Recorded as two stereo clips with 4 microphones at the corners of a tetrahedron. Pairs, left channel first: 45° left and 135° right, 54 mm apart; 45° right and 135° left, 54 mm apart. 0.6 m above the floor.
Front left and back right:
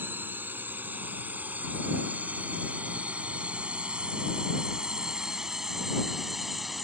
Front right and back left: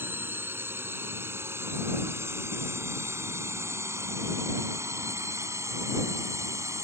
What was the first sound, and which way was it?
A drone, 175° left.